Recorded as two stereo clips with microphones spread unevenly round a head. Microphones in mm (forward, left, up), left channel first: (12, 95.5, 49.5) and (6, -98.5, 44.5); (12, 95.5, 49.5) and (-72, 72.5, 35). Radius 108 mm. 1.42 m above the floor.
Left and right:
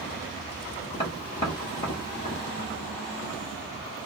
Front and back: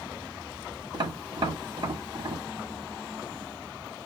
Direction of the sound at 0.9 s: 160° left.